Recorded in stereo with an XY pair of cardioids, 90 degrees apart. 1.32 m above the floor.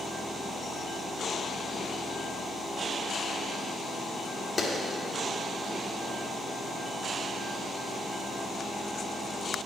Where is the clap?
40° left, 3 m.